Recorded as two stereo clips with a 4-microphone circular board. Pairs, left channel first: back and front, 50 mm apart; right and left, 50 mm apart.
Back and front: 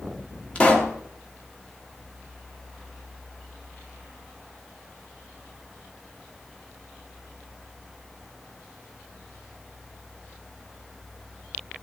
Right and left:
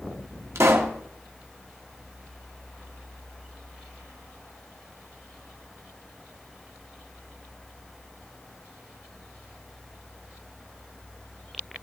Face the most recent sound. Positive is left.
turn(degrees=115)